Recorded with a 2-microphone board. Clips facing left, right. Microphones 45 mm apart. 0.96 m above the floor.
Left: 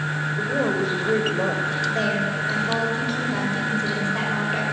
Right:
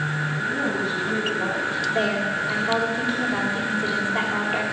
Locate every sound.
0.4 s a woman speaking: 80° left, 5 m; by 1.8 s 75° left (ahead or behind), 5 m
1.9 s a woman speaking: 10° right (ahead or behind), 5 m